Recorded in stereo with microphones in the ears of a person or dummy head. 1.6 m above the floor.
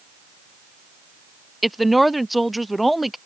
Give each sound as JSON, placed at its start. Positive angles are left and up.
{"t": 1.6, "sound": "a woman speaking", "side_deg": 0}